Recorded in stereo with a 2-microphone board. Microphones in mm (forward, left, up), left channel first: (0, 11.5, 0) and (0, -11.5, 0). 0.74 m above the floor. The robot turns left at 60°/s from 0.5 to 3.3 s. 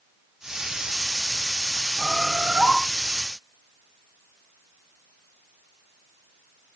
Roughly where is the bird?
Ahead.